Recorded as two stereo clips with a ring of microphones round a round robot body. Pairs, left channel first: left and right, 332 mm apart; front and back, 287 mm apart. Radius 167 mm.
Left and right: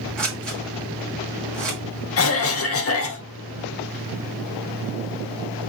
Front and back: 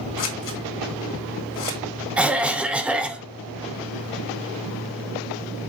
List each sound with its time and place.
0.2 s scissors: 5° left, 1.6 m
2.2 s a cough: 95° left, 0.8 m